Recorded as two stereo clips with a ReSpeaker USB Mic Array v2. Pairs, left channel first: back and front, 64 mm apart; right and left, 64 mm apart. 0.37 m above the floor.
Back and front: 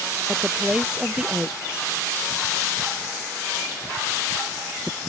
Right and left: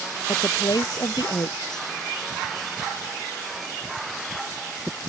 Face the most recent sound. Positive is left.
turn(degrees=-75)